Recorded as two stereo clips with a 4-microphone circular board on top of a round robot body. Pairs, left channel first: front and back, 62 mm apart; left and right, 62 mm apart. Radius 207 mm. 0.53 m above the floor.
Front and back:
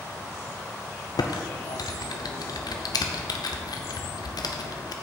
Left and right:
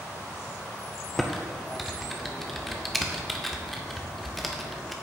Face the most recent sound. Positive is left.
turn(degrees=0)